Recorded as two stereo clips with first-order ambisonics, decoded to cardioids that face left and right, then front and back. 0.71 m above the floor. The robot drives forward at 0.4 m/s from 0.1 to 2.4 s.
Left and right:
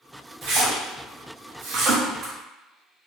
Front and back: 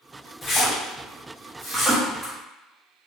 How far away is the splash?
About 1.1 m.